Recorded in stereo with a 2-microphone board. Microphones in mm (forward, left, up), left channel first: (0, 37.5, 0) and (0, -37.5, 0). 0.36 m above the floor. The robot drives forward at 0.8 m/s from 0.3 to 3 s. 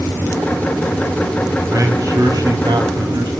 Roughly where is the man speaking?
Right.